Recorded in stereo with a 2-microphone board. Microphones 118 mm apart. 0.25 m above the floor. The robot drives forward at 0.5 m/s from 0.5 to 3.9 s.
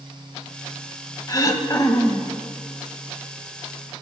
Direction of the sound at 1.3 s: 30° left (ahead or behind).